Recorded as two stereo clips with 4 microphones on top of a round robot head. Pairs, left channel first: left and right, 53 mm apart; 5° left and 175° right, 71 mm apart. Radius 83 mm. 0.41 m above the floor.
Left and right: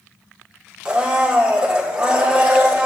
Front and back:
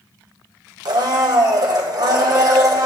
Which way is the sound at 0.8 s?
160° right.